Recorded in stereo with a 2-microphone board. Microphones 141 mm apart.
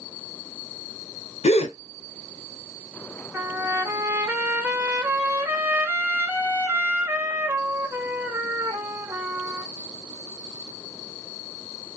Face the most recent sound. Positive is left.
turn(degrees=-15)  # may be behind; listen again after turning